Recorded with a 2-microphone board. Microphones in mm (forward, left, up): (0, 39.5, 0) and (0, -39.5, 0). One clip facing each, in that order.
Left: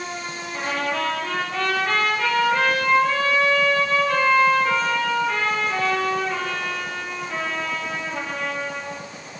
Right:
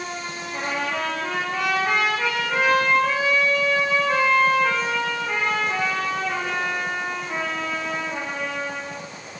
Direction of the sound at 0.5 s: 15° right (ahead or behind).